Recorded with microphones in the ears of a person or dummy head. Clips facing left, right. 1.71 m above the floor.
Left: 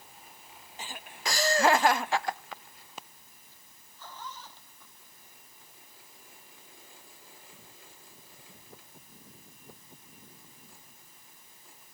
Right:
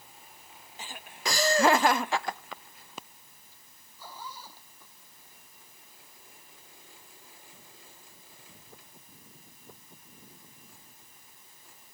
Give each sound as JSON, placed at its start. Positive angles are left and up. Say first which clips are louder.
{"t": 1.2, "sound": "laughter", "louder": "right 1 dB", "side_deg": -75}
{"t": 4.0, "sound": "a zipper", "louder": "even", "side_deg": -10}